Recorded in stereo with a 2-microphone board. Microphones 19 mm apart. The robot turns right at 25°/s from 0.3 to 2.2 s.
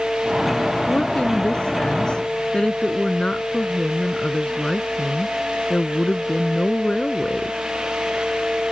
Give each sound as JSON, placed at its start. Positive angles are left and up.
{"t": 0.9, "sound": "a woman speaking", "azimuth_deg": 100}